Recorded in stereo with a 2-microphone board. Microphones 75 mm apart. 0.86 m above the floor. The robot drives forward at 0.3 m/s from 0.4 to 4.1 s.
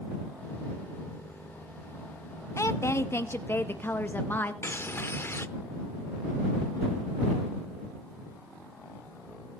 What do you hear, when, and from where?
2.6 s a woman speaking: 40° left (ahead or behind), 0.5 m; by 4.5 s 25° left (ahead or behind), 0.8 m
4.6 s a bird: 30° left (ahead or behind), 0.6 m